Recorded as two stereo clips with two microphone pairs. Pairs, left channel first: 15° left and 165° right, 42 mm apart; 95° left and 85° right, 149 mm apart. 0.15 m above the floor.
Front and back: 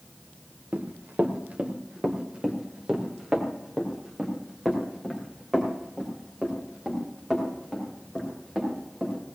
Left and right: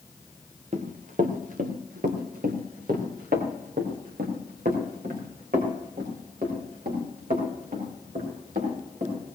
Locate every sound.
0.7 s running footsteps: 120° right, 1.6 m; by 9.2 s 75° right, 7 m